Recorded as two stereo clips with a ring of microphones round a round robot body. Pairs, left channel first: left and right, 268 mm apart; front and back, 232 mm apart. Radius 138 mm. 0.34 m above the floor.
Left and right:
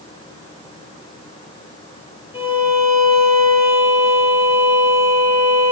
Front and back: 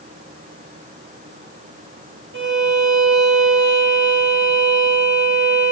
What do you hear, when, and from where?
2.3 s a violin: 155° left, 0.9 m